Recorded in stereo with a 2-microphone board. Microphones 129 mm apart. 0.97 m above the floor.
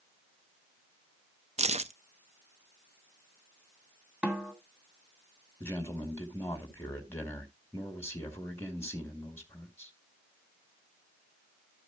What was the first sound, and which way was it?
Keys jangling, 60° right (ahead or behind).